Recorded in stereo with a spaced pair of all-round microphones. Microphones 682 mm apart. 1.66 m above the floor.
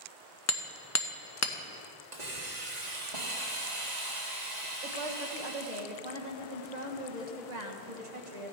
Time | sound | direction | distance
0.5 | hammering | 25° left (ahead or behind) | 0.9 m
2.1 | a hiss | 75° right (ahead or behind) | 1.9 m
4.8 | a woman speaking | 75° right (ahead or behind) | 1.6 m